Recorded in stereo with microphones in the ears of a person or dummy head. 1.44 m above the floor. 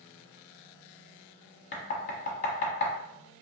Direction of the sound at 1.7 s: 45° left (ahead or behind).